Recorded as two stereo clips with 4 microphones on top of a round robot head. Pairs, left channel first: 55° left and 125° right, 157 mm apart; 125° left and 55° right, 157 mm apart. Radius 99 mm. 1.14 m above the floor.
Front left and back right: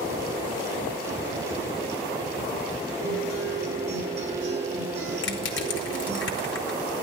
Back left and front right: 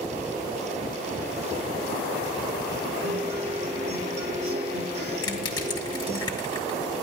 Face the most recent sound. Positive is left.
turn(degrees=60)